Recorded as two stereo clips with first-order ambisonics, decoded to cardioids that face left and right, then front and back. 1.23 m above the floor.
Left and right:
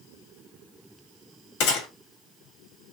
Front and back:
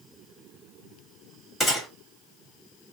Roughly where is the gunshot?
Left.